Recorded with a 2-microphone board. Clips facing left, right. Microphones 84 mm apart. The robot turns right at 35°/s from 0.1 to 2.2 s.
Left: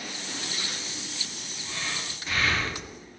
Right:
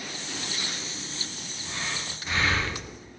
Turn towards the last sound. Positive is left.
turn(degrees=-25)  # may be behind; listen again after turning